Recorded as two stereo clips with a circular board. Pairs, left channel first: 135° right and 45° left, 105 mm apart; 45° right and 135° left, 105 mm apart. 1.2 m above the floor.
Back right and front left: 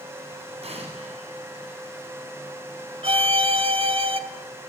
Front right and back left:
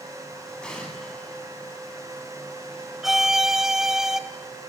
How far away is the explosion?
About 9.5 m.